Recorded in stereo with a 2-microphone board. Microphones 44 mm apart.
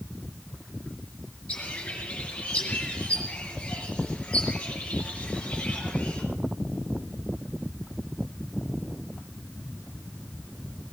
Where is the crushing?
I don't hear crushing.